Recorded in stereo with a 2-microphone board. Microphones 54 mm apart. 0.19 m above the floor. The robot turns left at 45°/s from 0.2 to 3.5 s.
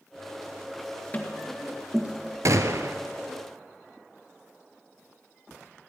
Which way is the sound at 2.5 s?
75° right (ahead or behind).